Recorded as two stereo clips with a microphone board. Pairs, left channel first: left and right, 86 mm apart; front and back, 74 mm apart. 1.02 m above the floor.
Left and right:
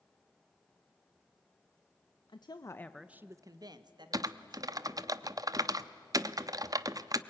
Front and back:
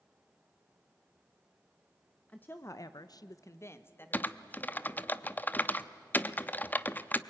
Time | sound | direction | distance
2.3 | a woman speaking | 65° left | 0.9 m
4.1 | typing on a keyboard | 60° right | 0.6 m